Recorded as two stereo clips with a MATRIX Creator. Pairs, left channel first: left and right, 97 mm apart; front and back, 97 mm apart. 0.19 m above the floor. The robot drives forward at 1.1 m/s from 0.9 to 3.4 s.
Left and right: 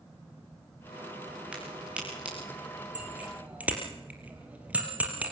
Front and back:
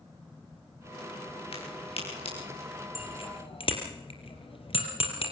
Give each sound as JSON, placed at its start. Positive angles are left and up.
{"t": 1.5, "sound": "a crack", "azimuth_deg": -10, "distance_m": 10.0}
{"t": 3.0, "sound": "a bicycle bell", "azimuth_deg": -15, "distance_m": 4.0}